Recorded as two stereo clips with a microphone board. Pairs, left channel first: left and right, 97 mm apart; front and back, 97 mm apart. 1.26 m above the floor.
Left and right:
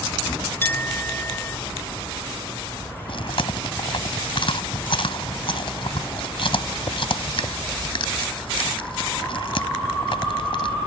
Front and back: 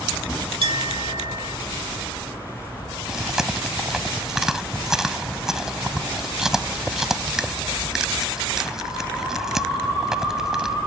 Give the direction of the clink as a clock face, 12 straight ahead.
7 o'clock.